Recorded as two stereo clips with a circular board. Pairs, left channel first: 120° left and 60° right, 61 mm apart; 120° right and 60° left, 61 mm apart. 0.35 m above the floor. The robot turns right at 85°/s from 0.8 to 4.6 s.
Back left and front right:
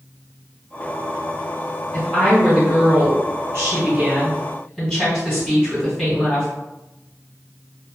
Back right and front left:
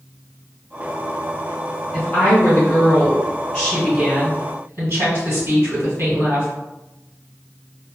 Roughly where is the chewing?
No chewing in this recording.